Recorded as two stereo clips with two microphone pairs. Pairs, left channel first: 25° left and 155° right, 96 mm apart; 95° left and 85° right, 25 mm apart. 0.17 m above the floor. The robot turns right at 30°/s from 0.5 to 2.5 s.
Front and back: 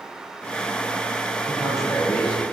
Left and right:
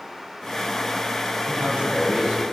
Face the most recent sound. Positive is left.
turn(degrees=-40)